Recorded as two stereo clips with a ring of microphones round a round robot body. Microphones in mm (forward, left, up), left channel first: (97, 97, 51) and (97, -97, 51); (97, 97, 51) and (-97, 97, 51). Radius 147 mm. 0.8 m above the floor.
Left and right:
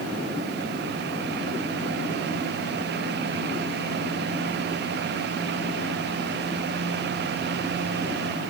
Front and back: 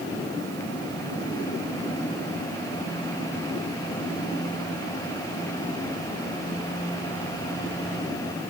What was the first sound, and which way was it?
Only background noise.